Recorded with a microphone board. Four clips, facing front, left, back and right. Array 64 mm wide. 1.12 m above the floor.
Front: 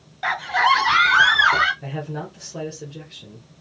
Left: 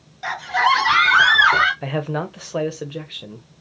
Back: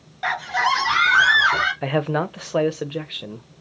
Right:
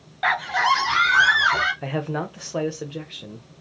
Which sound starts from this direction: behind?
A man speaking, at 1.8 s.